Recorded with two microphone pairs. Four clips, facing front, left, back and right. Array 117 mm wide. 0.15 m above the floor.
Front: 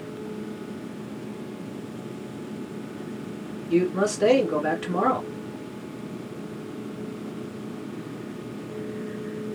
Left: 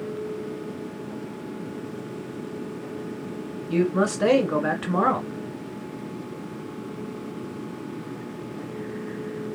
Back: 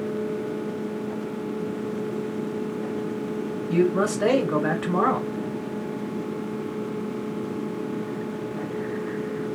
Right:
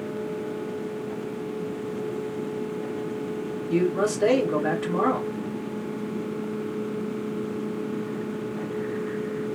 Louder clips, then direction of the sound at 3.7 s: Left 1 dB, back 1 dB; 125° left.